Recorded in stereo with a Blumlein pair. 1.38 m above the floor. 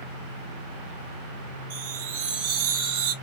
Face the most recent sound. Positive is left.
turn(degrees=-50)